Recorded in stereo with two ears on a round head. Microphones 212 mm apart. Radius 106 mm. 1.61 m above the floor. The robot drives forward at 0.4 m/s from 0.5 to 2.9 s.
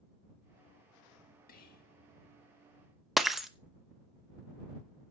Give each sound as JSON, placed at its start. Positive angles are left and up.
{"t": 1.5, "sound": "whispering", "side_deg": 40, "distance_m": 2.0}
{"t": 3.2, "sound": "breaking glass", "side_deg": 0, "distance_m": 0.8}